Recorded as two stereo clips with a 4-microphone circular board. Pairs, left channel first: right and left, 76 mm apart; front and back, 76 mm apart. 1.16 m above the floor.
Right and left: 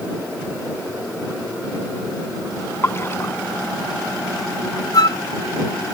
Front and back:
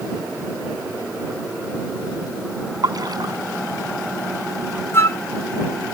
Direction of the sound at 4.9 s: 55° right.